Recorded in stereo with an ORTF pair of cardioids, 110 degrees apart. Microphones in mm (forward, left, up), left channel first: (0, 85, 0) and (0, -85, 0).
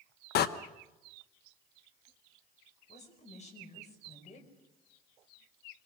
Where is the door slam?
65° left, 1.1 m.